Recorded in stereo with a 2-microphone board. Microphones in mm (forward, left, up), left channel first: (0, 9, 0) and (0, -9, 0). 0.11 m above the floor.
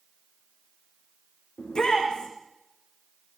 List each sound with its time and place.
1.6 s a shout: 55° left (ahead or behind), 9.5 m